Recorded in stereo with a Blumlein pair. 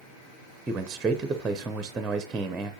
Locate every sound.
0.7 s a man speaking: 15° right, 0.7 m